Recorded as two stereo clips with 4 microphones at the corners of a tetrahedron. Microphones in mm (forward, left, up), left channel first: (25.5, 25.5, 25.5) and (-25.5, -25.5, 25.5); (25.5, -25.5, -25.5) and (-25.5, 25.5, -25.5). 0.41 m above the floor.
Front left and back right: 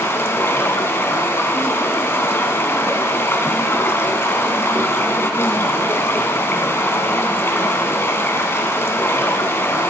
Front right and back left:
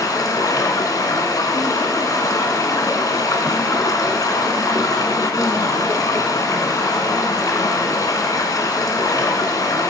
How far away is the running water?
About 1.3 m.